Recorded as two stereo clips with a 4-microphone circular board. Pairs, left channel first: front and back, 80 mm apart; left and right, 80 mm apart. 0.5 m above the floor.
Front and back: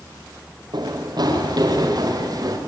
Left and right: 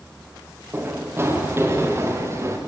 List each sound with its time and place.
0.7 s running footsteps: 150° right, 6.5 m; by 2.6 s 140° right, 6.5 m